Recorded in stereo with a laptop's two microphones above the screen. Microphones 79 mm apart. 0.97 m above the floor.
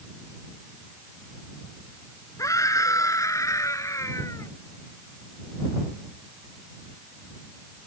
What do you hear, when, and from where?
2.4 s a scream: 40° left (ahead or behind)